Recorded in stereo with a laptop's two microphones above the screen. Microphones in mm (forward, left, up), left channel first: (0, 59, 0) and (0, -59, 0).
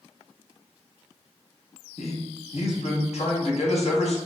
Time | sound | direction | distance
2.0 | a man speaking | 65° left (ahead or behind) | 1.0 m